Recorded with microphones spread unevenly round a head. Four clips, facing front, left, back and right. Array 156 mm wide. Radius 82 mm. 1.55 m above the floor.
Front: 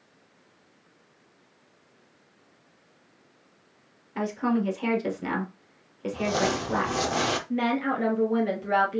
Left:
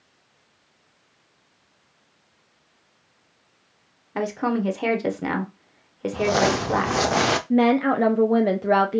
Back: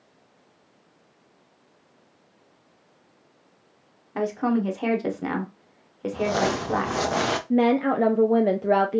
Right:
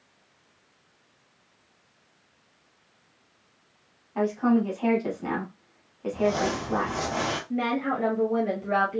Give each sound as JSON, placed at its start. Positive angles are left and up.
{"t": 4.2, "sound": "a woman speaking", "azimuth_deg": 90, "distance_m": 1.1}
{"t": 6.1, "sound": "crumpling", "azimuth_deg": 85, "distance_m": 0.5}
{"t": 7.5, "sound": "a woman speaking", "azimuth_deg": 85, "distance_m": 0.5}